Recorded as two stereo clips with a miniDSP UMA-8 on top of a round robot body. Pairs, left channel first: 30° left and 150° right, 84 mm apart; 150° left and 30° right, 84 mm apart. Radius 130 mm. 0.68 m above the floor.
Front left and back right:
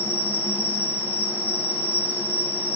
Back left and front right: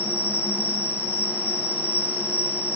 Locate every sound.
0.0 s an insect: 90° left, 2.5 m